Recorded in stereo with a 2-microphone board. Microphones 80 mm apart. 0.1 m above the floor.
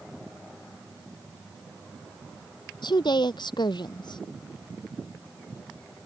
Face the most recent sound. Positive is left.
turn(degrees=70)  # may be behind; listen again after turning